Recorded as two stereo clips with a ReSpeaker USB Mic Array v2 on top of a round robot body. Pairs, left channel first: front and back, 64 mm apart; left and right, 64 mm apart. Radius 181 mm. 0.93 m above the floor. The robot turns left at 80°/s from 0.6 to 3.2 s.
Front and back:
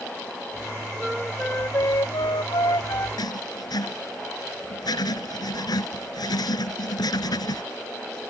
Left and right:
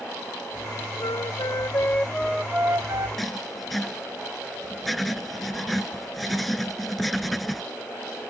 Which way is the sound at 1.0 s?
105° left.